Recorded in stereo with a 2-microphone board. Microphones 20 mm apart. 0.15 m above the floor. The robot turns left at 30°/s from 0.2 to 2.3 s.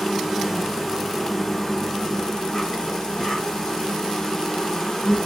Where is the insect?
155° right, 1.9 m; by 5.3 s 140° left, 1.9 m.